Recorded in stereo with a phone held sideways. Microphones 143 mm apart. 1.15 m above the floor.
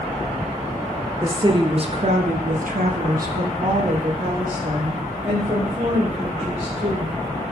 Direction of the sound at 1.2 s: 25° right (ahead or behind).